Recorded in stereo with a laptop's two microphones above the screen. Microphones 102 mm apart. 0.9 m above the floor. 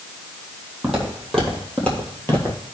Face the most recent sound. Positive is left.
turn(degrees=30)  # may be behind; listen again after turning